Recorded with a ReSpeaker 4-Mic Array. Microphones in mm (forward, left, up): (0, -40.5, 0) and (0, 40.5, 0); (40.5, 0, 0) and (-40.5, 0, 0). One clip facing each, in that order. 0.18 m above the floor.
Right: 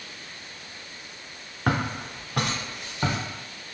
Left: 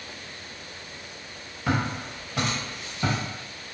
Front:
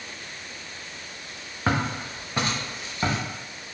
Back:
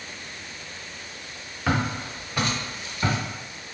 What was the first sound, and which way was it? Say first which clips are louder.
Footsteps: right 1 dB, even; 55° right.